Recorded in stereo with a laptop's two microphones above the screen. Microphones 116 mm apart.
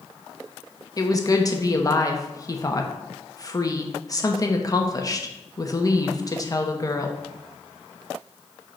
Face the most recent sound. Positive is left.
turn(degrees=30)  # may be behind; listen again after turning